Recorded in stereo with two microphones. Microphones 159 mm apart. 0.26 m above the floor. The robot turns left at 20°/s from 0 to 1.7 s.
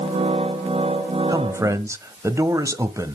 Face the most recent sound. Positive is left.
turn(degrees=-20)  # may be behind; listen again after turning